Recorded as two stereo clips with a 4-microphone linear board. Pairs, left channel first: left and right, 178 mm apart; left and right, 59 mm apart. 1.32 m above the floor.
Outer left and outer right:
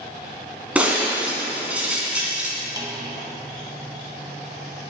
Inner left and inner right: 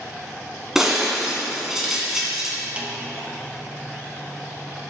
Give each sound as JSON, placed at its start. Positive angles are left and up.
{"t": 0.8, "sound": "breaking glass", "side_deg": -5, "distance_m": 2.0}
{"t": 2.8, "sound": "a snare drum", "side_deg": -20, "distance_m": 1.1}